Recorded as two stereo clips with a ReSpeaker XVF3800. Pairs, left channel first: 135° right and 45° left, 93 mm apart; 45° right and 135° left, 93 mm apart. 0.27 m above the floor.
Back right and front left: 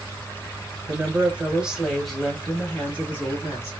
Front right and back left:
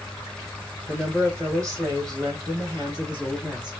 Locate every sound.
0.9 s a woman speaking: 75° left, 1.1 m; by 3.7 s 170° left, 1.9 m